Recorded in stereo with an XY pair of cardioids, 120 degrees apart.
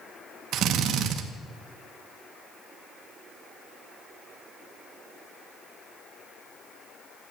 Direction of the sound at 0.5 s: 65° right.